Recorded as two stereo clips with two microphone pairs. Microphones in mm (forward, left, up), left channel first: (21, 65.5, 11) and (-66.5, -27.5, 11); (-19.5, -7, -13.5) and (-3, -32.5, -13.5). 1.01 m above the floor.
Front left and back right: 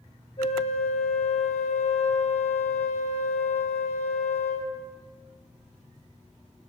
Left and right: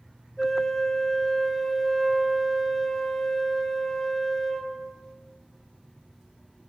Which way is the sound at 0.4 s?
40° left.